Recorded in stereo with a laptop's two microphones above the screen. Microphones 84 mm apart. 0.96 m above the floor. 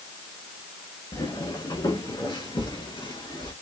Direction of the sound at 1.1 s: 60° left (ahead or behind).